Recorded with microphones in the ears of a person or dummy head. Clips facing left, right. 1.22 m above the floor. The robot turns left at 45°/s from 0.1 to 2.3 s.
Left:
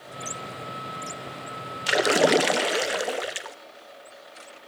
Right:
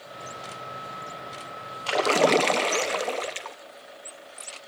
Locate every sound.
1.9 s a splash: 20° left (ahead or behind), 0.7 m; by 3.6 s 10° left (ahead or behind), 0.7 m